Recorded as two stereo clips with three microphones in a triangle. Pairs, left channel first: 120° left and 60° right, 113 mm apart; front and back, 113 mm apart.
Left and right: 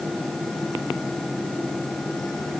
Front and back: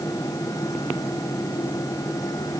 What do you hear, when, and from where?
Only background noise.